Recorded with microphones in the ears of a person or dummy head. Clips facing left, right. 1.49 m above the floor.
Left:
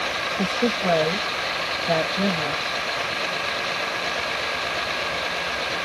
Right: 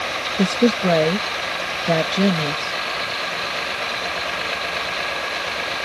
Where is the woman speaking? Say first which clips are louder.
Right 7 dB; 35° right (ahead or behind).